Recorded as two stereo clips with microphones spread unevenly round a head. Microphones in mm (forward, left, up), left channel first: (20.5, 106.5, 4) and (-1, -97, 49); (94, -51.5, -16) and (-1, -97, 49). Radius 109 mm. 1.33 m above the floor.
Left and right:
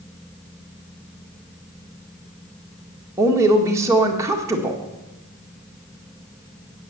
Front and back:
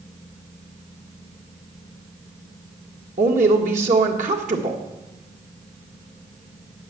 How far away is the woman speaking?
About 1.6 m.